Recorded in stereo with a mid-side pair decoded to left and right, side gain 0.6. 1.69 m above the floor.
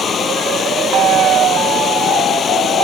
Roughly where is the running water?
Ahead left.